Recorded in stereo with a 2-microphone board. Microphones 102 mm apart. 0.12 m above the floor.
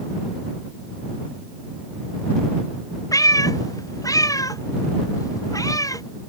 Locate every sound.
3.1 s a cat meowing: 35° left (ahead or behind)